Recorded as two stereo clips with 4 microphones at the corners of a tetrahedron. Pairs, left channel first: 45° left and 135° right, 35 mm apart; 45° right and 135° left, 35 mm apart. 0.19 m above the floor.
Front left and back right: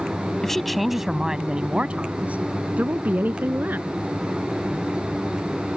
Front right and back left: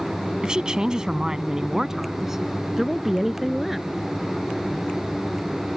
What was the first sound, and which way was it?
A woman speaking, 105° left.